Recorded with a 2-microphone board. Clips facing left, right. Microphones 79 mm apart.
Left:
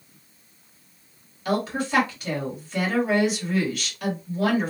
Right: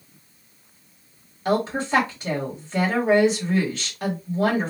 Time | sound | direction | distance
1.4 | a woman speaking | 35° right (ahead or behind) | 1.6 m